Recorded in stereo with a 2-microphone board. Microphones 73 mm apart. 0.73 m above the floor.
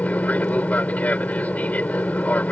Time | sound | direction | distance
0.0 | an aircraft | 20° left (ahead or behind) | ?